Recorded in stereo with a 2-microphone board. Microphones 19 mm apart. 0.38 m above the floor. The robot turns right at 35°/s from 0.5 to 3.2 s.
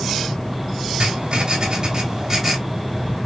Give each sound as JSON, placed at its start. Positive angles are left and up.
{"t": 1.0, "sound": "writing", "azimuth_deg": -75, "distance_m": 3.0}